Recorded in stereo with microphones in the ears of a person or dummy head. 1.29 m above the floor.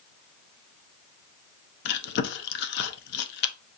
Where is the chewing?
50° left (ahead or behind), 0.6 m.